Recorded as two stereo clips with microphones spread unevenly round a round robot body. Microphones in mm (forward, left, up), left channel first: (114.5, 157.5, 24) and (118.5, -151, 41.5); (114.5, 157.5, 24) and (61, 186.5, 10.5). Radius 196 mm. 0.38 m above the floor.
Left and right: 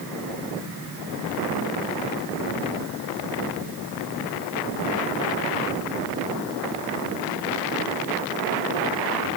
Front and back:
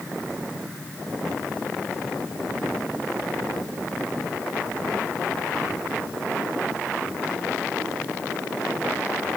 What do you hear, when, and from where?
Only background noise.